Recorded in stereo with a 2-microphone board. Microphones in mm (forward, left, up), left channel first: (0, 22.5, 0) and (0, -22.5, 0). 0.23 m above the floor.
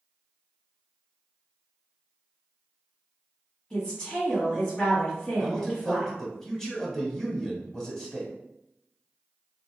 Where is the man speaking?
15° left (ahead or behind), 1.0 m.